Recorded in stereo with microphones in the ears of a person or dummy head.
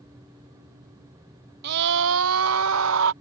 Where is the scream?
60° right (ahead or behind); by 3.1 s 75° right (ahead or behind).